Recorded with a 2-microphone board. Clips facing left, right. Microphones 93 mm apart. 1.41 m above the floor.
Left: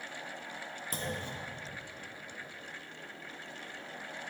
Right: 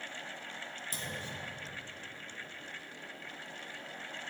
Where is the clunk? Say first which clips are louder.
Left 5 dB; 50° left (ahead or behind), 1.4 m.